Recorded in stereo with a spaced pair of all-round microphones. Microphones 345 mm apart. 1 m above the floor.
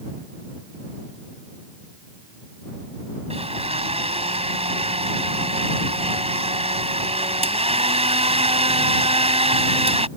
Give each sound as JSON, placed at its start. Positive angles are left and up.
{"t": 3.3, "sound": "a blender", "side_deg": -15}